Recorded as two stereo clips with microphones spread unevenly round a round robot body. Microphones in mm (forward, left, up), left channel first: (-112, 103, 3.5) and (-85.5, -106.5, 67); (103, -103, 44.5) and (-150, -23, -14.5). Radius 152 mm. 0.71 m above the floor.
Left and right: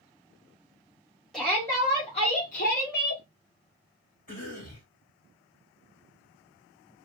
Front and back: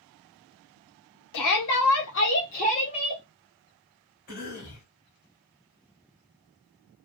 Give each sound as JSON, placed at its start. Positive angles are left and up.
{"t": 1.3, "sound": "a shout", "azimuth_deg": 15, "distance_m": 1.7}
{"t": 4.3, "sound": "a cough", "azimuth_deg": 45, "distance_m": 3.0}